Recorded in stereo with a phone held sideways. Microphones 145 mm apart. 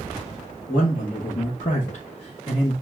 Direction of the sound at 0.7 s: 75° left (ahead or behind).